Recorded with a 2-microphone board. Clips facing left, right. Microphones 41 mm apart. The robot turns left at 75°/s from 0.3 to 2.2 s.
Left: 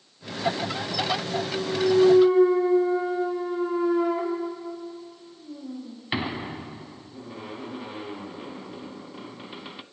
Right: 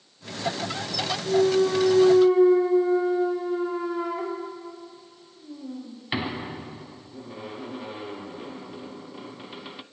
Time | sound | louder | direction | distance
1.3 | a clunk | right 8 dB | 45° right (ahead or behind) | 0.7 m